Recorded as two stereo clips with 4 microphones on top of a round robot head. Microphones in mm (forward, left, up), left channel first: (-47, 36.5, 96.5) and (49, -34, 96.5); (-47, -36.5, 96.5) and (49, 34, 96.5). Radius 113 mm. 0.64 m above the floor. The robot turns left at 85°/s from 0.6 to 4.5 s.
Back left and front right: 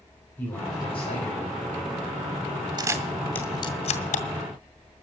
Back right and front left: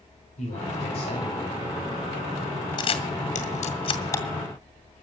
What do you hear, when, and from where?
0.4 s a man speaking: 150° right, 4.5 m; by 1.6 s 125° left, 4.5 m
2.8 s a camera shutter: 90° right, 1.8 m; by 4.2 s 145° left, 1.8 m